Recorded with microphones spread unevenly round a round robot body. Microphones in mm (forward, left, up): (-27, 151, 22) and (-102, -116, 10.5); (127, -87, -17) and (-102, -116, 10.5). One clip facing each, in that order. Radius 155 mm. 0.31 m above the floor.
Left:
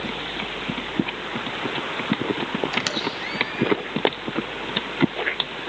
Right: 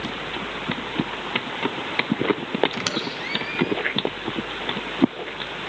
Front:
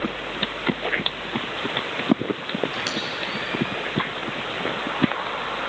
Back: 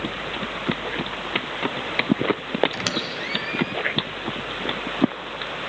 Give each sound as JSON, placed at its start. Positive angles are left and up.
{"t": 2.7, "sound": "a squeak", "azimuth_deg": 175, "distance_m": 0.9}